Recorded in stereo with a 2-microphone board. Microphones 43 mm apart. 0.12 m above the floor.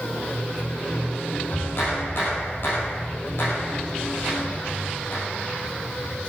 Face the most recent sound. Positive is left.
turn(degrees=55)  # may be behind; listen again after turning